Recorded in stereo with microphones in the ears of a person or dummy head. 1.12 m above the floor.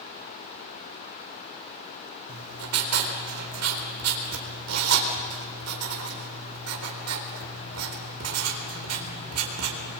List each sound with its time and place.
2.3 s writing: 85° right, 4 m